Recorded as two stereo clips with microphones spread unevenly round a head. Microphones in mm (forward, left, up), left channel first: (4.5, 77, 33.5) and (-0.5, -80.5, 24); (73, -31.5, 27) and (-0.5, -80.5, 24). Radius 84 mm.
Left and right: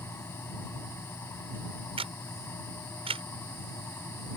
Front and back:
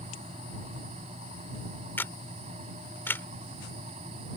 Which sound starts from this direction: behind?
A fan, at 0.0 s.